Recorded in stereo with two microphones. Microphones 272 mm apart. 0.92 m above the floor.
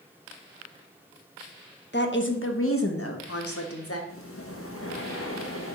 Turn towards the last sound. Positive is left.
turn(degrees=55)  # may be behind; listen again after turning